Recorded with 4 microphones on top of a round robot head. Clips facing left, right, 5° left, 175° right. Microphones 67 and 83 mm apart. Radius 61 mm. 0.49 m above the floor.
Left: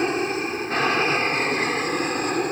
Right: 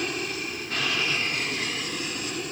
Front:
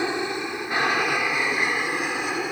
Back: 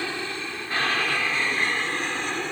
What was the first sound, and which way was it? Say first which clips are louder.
An aircraft: left 8 dB, front 5 dB; 60° left.